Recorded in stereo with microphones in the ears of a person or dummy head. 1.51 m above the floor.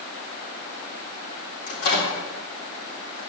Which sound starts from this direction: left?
A microwave, at 1.7 s.